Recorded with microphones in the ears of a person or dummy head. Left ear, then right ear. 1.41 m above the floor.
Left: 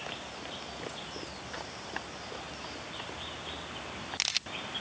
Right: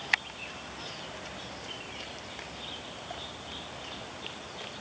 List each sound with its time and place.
Only background noise.